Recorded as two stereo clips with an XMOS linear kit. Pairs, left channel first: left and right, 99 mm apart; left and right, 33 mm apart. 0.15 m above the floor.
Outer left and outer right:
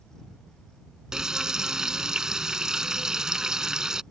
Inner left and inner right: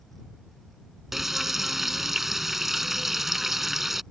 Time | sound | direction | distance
1.1 | frying | 5° right (ahead or behind) | ?